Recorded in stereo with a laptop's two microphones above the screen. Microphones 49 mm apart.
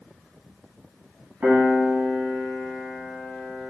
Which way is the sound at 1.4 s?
35° right (ahead or behind).